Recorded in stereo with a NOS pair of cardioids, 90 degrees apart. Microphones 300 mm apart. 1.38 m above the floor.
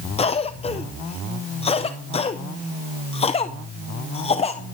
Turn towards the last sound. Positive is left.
turn(degrees=20)